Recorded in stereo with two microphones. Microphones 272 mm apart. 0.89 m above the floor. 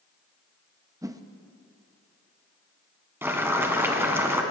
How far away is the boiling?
About 1.3 m.